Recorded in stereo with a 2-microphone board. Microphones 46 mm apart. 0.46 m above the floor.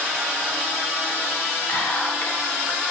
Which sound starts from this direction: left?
Whispering, at 1.7 s.